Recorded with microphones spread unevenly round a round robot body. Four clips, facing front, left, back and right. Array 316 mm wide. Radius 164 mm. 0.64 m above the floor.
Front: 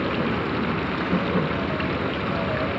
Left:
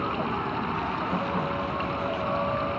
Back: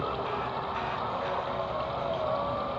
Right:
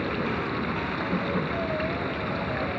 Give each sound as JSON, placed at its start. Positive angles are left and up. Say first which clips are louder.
{"t": 0.0, "sound": "running water", "louder": "even, front 7 dB", "azimuth_deg": -5}